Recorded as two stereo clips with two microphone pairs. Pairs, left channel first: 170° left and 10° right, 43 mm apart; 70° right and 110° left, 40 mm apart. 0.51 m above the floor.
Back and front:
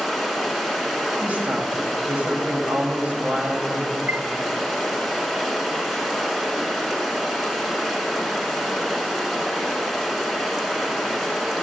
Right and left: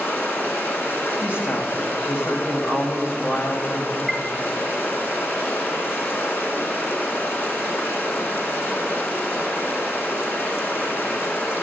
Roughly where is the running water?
Right.